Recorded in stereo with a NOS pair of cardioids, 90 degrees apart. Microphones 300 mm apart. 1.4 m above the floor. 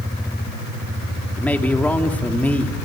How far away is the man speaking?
About 3 m.